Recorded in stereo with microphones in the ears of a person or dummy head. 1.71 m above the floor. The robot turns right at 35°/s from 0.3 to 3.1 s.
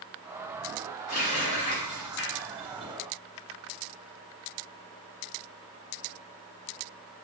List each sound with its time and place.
1.1 s a running tap: 40° left (ahead or behind), 1.1 m; by 2.9 s centre (ahead or behind), 1.1 m